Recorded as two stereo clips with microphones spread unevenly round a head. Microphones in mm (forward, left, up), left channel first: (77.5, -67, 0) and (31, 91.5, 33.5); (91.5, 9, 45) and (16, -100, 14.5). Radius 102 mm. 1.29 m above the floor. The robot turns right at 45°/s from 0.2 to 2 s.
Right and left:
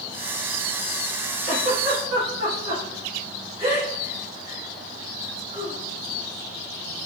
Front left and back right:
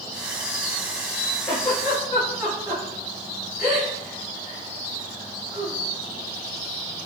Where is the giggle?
135° left, 3.5 m; by 5.8 s 160° left, 3.5 m.